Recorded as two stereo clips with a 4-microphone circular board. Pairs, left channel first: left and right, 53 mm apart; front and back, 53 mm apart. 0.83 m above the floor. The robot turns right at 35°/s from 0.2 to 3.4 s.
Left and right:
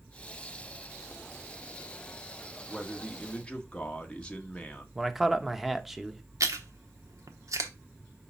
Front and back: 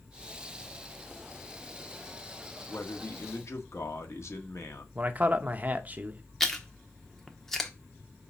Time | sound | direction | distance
2.7 | a man speaking | 5° right | 1.4 m
5.0 | a man speaking | 175° right | 0.9 m
6.4 | chewing | 85° right | 1.0 m